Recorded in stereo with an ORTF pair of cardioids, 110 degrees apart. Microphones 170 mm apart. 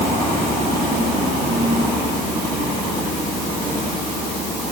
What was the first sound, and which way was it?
Only background noise.